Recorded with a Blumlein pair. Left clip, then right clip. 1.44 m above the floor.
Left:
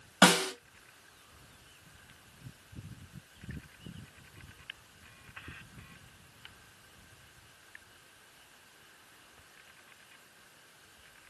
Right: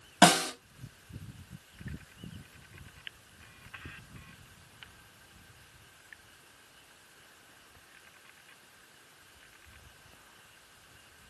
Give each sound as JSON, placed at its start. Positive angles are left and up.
{"t": 0.2, "sound": "a snare drum", "azimuth_deg": -5, "distance_m": 1.6}